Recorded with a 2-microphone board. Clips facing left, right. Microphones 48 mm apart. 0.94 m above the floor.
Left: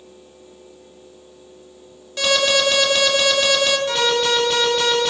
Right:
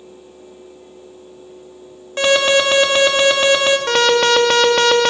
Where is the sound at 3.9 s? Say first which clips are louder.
Right 5 dB; 70° right (ahead or behind), 1.7 m.